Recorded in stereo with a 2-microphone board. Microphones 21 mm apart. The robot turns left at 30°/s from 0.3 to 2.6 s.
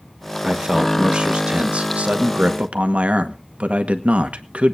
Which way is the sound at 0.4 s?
35° right.